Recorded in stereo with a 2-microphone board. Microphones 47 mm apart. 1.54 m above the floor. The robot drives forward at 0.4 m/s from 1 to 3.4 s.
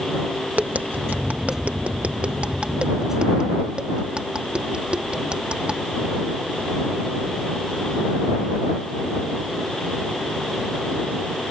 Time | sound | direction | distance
0.6 | tapping | 35° right (ahead or behind) | ?